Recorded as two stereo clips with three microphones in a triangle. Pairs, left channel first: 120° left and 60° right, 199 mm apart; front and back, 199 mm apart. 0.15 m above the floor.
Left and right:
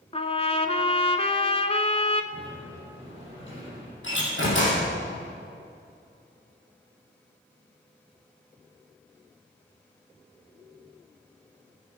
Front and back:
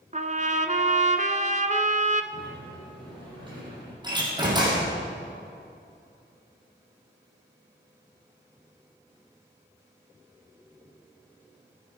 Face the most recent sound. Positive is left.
turn(degrees=115)